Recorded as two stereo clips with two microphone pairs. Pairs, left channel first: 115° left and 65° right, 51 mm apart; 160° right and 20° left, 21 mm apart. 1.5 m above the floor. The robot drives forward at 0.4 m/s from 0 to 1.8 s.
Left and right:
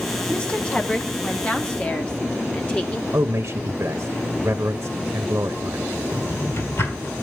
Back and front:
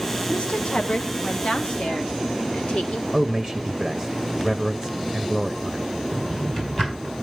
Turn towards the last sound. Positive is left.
turn(degrees=140)